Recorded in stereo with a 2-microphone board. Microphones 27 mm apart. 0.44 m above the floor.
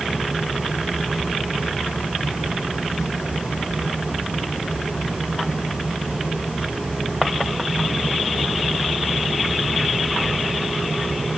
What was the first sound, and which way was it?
Only background noise.